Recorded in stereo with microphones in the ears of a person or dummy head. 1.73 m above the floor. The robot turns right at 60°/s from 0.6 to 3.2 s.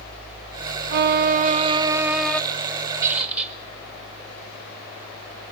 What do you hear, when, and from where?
0.9 s a violin: 85° right, 0.8 m; by 2.4 s 5° left, 0.8 m
3.0 s a squeak: 20° right (ahead or behind), 1.2 m; by 3.6 s 10° right (ahead or behind), 1.2 m